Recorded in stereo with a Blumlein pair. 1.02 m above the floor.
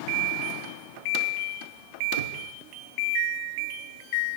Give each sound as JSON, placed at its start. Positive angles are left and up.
{"t": 2.2, "sound": "knocking", "azimuth_deg": -65, "distance_m": 1.9}